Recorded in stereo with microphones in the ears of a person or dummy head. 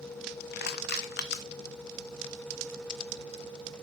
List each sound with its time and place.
0.5 s crushing: 60° left (ahead or behind), 0.8 m